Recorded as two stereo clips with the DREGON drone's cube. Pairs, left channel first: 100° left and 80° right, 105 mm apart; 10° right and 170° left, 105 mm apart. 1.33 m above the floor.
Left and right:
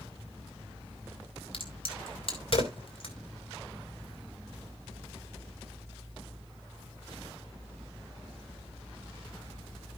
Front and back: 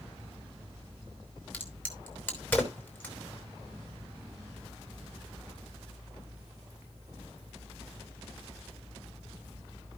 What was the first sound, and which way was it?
A crack, 65° left.